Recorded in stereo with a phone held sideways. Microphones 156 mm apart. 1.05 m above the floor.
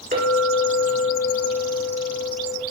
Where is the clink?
60° right (ahead or behind), 2 m.